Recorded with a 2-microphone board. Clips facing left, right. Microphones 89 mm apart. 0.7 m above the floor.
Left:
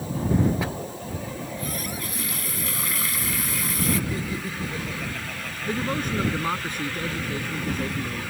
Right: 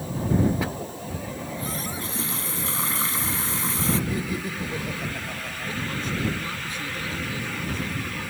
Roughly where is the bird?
No bird in this recording.